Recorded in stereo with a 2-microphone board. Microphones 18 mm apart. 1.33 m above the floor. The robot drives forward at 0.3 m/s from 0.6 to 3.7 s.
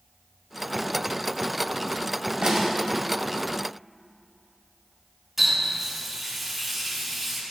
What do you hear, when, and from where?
2.4 s a snare drum: 75° right (ahead or behind), 3 m
5.4 s a running tap: 15° right (ahead or behind), 5.5 m